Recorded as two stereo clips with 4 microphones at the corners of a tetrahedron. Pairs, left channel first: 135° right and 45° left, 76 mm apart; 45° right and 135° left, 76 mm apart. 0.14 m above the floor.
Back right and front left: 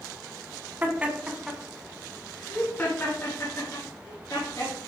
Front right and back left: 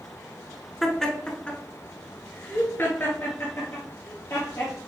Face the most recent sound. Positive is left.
turn(degrees=-95)